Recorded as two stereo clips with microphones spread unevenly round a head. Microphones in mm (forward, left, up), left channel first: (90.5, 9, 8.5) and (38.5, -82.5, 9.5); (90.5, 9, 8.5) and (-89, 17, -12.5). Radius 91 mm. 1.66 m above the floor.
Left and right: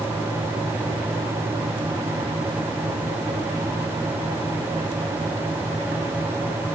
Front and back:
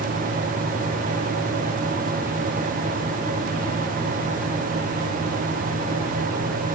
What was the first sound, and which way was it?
Only background noise.